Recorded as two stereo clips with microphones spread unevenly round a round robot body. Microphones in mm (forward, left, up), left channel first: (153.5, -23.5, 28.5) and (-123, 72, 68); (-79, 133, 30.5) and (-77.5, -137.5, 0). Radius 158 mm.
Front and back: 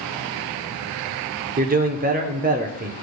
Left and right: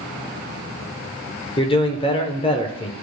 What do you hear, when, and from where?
1.6 s a man speaking: 145° left, 0.8 m